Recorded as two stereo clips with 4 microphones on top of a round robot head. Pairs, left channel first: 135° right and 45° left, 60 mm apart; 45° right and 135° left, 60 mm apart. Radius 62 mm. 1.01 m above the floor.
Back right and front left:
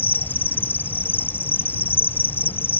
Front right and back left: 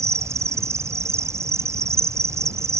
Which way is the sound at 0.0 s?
170° left.